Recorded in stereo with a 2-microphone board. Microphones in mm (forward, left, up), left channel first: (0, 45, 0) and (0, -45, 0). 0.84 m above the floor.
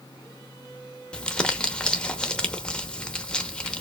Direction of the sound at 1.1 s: 10° left (ahead or behind).